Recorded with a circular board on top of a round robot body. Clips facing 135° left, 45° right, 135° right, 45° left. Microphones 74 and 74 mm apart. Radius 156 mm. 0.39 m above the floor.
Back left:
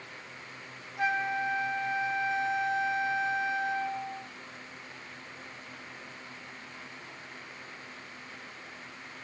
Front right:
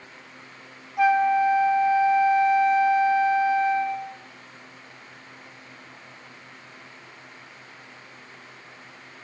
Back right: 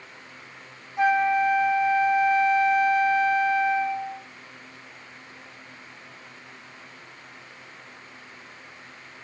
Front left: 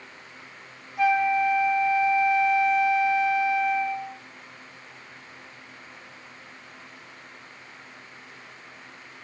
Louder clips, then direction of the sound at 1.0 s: Front right 11 dB, back right 1 dB; 75° right.